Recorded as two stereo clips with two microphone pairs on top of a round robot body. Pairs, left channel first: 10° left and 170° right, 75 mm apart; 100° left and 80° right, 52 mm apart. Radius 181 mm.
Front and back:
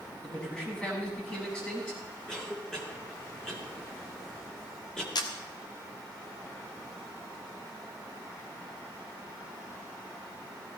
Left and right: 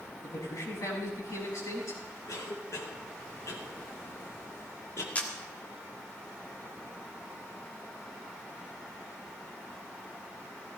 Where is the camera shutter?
35° left, 1.7 m.